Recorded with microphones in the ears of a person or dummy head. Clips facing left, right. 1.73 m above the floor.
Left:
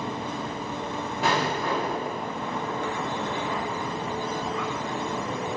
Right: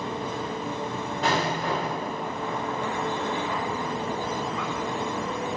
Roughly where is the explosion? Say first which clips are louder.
Even; centre.